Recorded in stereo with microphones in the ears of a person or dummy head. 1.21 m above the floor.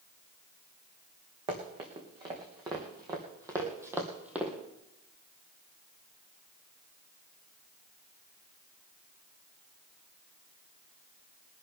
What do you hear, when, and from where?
1.5 s running footsteps: 30° right (ahead or behind), 4 m; by 4.5 s 5° right (ahead or behind), 2.5 m
3.6 s a cowbell: 55° right (ahead or behind), 1.7 m